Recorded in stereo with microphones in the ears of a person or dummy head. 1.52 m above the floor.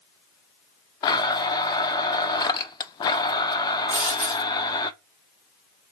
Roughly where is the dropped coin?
Centre.